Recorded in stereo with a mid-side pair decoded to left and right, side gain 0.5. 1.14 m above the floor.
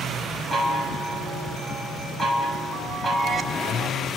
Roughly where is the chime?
Ahead.